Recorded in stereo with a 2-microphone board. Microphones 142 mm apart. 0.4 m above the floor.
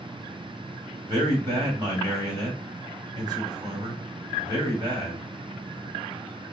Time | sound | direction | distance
1.1 | a man speaking | 35° right (ahead or behind) | 1.7 m